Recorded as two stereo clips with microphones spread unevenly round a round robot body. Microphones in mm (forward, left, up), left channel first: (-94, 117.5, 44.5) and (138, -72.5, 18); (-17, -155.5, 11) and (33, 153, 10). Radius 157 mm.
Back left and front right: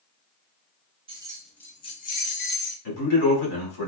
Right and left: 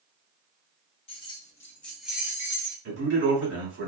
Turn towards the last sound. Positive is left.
turn(degrees=130)